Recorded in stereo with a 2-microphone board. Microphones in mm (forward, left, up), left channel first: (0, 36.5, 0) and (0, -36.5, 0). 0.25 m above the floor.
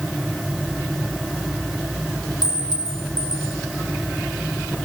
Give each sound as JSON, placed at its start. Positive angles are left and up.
{"t": 2.4, "sound": "a clink", "side_deg": 65, "distance_m": 4.5}